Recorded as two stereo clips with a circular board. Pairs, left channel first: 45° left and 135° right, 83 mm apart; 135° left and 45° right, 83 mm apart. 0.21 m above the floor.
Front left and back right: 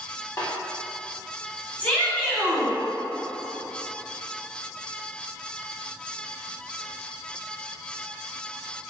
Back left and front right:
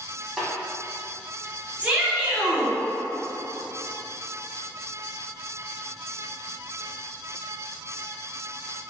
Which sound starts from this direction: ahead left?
A snare drum, at 0.4 s.